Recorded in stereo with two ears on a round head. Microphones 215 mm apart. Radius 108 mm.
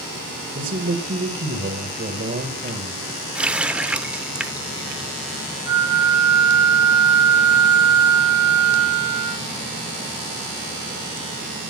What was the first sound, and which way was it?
A man speaking, 40° right (ahead or behind).